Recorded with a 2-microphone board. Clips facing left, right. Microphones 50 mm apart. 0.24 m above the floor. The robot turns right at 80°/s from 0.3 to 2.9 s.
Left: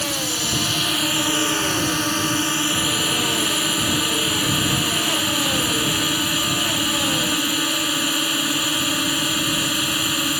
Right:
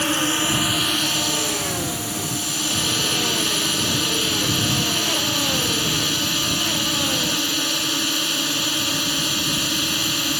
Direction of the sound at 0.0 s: 50° right.